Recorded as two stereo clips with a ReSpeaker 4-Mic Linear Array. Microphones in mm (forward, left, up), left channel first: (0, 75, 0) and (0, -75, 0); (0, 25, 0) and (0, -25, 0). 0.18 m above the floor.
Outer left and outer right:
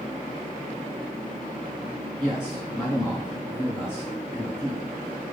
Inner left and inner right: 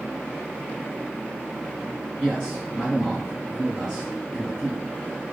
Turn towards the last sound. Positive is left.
turn(degrees=15)  # may be behind; listen again after turning